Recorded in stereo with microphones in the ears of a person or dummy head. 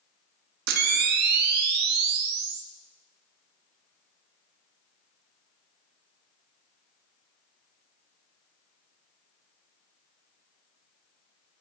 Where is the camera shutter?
60° right (ahead or behind), 0.6 m.